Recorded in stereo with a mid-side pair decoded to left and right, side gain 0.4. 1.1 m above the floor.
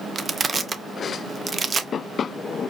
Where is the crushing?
40° right, 0.5 m.